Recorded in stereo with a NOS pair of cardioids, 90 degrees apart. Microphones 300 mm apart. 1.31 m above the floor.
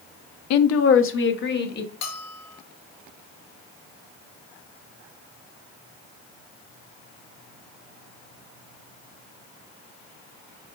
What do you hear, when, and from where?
0.5 s a woman speaking: 60° left, 0.5 m; by 1.9 s 30° left, 1.2 m
2.0 s a bell: 55° left, 1.1 m